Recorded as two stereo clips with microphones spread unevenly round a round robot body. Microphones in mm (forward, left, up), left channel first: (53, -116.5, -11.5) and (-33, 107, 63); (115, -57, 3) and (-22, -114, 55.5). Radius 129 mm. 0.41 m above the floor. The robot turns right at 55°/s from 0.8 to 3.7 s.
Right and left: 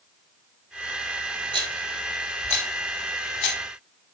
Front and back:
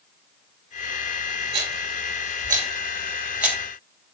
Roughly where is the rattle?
Behind.